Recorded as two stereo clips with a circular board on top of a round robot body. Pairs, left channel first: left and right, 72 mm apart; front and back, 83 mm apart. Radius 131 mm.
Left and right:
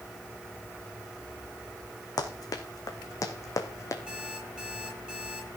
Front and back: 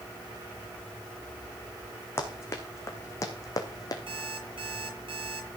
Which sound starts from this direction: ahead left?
Running footsteps, at 2.2 s.